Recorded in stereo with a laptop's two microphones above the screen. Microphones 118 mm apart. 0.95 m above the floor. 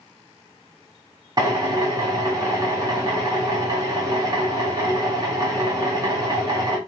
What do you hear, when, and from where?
1.4 s a drill: 35° right (ahead or behind), 0.9 m